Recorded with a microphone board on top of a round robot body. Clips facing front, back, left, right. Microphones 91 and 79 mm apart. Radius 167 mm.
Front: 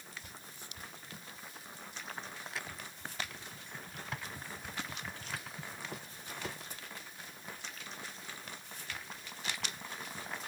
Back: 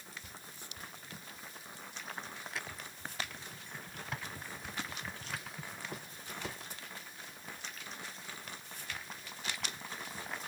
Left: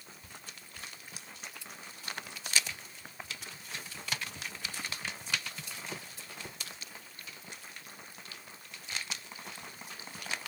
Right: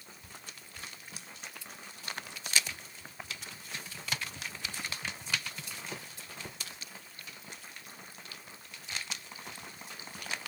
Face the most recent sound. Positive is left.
No sound to turn to.